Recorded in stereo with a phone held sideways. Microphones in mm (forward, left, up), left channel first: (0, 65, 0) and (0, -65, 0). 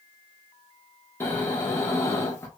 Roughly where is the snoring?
Centre.